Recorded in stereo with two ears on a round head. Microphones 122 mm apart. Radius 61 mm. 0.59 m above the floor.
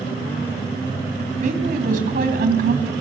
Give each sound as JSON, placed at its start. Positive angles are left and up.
{"t": 1.4, "sound": "a woman speaking", "side_deg": -60, "distance_m": 3.5}